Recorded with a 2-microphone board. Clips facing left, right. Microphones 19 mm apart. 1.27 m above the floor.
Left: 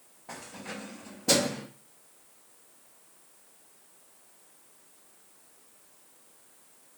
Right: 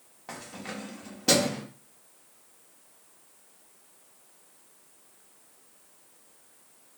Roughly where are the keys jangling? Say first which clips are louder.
Right 2 dB; right.